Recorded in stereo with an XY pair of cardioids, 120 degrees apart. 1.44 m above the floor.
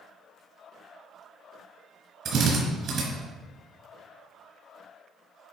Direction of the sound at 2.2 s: 60° right.